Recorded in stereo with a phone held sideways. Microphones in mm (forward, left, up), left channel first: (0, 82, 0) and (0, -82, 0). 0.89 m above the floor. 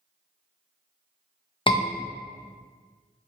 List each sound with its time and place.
1.7 s a scream: 30° left (ahead or behind), 0.5 m